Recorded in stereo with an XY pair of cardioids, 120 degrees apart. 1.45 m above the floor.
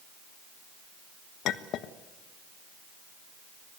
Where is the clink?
70° left, 1.3 m.